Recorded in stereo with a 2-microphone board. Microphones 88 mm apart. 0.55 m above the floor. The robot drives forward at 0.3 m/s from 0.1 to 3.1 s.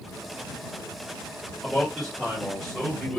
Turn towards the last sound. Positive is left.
turn(degrees=5)  # may be behind; listen again after turning